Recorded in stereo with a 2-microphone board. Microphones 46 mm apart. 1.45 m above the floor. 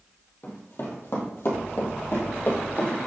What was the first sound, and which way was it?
Running footsteps, 45° left (ahead or behind).